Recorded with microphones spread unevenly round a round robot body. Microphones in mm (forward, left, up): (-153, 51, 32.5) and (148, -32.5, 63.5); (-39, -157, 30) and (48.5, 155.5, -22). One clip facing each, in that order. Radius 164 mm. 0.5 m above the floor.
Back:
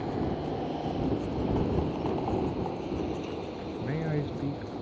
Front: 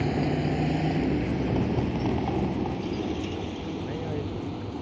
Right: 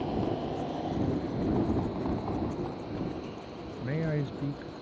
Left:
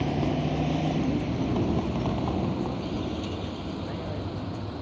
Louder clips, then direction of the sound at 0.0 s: Front 5 dB, left 4 dB; 30° left.